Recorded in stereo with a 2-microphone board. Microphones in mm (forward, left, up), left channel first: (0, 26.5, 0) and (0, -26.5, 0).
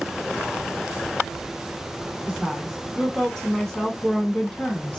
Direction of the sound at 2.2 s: 10° right (ahead or behind).